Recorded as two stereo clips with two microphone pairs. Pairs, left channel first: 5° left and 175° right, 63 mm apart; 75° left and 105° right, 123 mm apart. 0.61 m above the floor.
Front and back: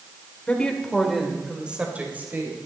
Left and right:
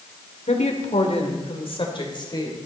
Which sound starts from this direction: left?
A woman speaking, at 0.5 s.